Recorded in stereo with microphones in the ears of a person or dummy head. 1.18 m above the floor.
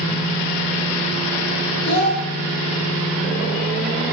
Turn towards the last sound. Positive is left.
turn(degrees=50)  # may be behind; listen again after turning